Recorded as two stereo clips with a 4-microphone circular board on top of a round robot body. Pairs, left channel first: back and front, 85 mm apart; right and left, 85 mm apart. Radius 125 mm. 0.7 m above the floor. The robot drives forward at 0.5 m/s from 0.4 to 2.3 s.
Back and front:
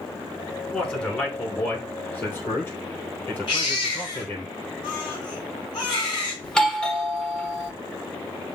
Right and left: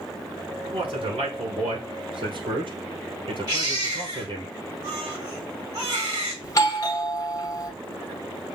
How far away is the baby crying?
About 3 m.